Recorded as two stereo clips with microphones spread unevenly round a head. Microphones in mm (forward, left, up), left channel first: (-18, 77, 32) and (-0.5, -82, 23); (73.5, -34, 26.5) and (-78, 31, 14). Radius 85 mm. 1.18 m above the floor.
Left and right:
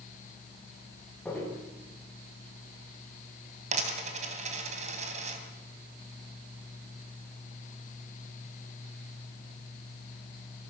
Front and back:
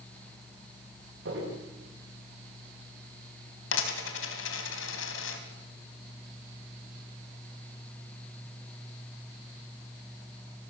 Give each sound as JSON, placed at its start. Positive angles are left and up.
{"t": 1.2, "sound": "footsteps", "azimuth_deg": 180, "distance_m": 9.0}
{"t": 3.7, "sound": "a dropped coin", "azimuth_deg": -35, "distance_m": 3.5}